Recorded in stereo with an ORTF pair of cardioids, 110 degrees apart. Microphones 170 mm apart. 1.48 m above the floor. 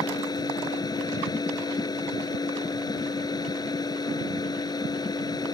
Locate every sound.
0.0 s a machine running: 25° left